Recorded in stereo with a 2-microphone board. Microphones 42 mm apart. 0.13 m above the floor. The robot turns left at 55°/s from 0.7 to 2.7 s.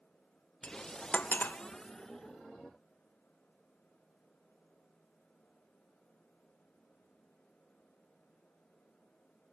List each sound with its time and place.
0.6 s cutlery clinking: 25° left (ahead or behind), 0.8 m; by 1.6 s 45° left (ahead or behind), 0.8 m